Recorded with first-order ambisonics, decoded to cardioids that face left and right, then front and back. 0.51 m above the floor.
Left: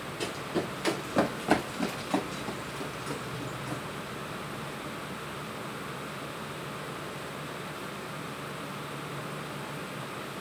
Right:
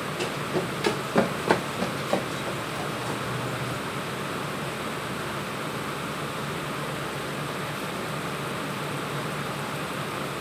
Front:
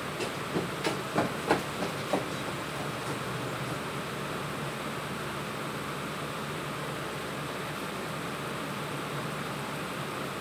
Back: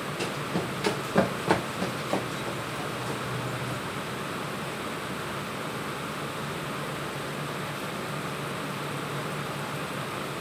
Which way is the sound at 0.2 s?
120° right.